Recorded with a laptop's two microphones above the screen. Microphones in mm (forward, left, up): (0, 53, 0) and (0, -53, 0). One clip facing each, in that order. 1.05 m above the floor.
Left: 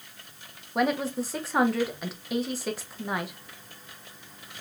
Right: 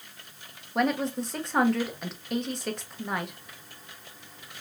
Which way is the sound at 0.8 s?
5° left (ahead or behind).